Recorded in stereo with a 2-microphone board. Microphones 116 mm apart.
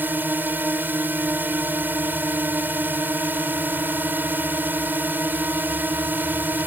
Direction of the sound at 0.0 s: 15° right (ahead or behind).